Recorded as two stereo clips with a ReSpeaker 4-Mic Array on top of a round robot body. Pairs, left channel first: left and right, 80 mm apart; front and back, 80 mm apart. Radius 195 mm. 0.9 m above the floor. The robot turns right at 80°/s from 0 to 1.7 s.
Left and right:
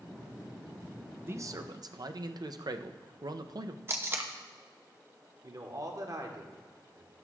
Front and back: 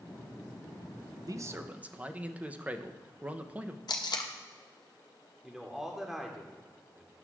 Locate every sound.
1.2 s a man speaking: 145° right, 0.7 m; by 3.8 s 110° right, 0.7 m
3.9 s tape being pulled: 30° right, 0.6 m
5.4 s a man speaking: 95° right, 1.4 m